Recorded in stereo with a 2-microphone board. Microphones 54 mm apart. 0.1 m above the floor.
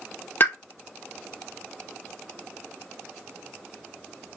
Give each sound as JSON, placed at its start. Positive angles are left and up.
{"t": 0.4, "sound": "a pop", "side_deg": 40, "distance_m": 0.6}